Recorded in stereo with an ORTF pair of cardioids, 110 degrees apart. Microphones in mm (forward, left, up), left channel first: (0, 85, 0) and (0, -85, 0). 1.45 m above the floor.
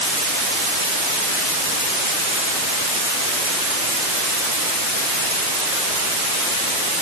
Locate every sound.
Only background noise.